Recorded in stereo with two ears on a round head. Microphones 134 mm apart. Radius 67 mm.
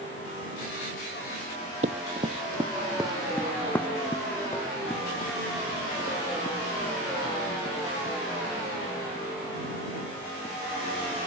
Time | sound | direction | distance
1.8 | running footsteps | 45° right (ahead or behind) | ?